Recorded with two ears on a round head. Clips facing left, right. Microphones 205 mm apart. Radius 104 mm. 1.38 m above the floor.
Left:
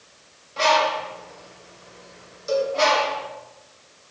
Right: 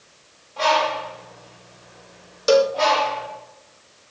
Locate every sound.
0.6 s a bird: 25° left (ahead or behind), 4 m
2.5 s a cowbell: 70° right (ahead or behind), 0.6 m